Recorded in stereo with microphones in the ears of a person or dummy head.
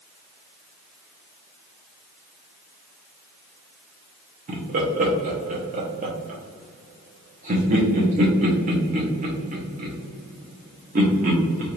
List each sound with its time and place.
4.5 s laughter: 40° right (ahead or behind), 0.9 m